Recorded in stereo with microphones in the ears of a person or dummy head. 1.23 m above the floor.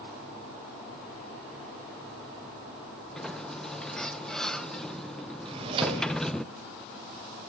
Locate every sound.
3.1 s a sliding door: 15° left (ahead or behind), 0.6 m
5.5 s a drawer: 35° right (ahead or behind), 2.5 m